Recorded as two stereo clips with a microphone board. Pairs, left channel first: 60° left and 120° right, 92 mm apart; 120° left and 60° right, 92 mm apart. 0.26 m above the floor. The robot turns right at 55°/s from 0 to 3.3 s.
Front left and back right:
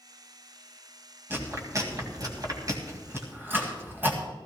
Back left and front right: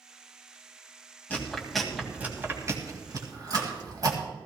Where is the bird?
No bird in this recording.